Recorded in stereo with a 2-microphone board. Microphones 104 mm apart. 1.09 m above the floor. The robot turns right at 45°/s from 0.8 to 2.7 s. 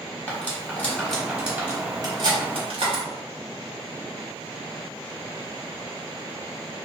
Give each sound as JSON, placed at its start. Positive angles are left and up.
{"t": 0.3, "sound": "cutlery clinking", "side_deg": 15, "distance_m": 1.1}